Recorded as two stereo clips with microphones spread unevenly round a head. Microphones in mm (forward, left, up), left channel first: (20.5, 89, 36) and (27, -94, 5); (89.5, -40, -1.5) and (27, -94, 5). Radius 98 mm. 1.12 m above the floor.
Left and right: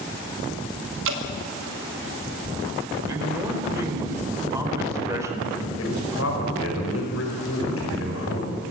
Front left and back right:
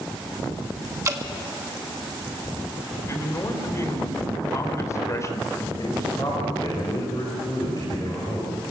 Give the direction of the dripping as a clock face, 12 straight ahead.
3 o'clock.